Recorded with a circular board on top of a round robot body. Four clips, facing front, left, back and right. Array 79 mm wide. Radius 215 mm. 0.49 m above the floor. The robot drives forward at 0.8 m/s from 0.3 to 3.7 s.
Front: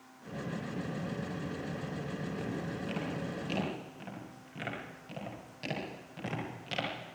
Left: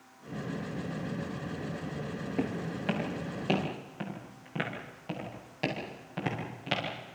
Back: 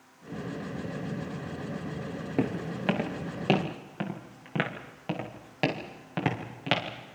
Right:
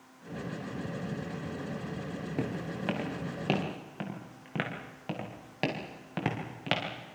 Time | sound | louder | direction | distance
2.4 | footsteps | left 2 dB, back 7 dB | 175° right | 3.5 m